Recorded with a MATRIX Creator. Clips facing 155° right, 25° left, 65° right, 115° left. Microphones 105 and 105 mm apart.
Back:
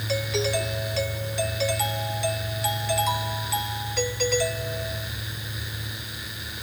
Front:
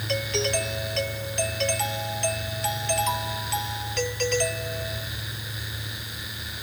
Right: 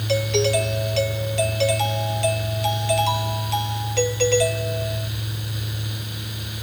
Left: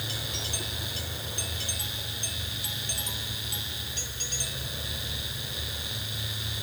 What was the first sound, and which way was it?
A doorbell, 70° right.